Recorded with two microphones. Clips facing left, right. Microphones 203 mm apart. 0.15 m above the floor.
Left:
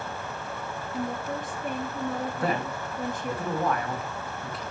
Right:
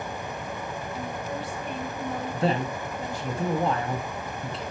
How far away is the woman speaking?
About 2.5 m.